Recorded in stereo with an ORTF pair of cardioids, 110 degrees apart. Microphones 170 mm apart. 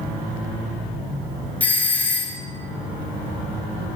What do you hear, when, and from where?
1.6 s a doorbell: 10° left, 1.0 m